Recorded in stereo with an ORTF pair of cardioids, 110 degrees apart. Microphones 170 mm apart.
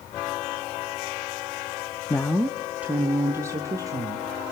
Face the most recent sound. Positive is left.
turn(degrees=-20)